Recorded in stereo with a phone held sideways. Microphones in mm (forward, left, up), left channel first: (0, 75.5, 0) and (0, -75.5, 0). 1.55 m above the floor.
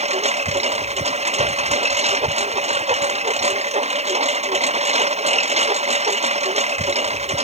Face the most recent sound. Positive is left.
turn(degrees=-45)  # may be behind; listen again after turning